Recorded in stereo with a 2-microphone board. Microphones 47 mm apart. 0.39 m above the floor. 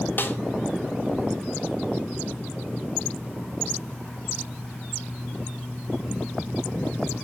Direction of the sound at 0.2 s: 45° left (ahead or behind).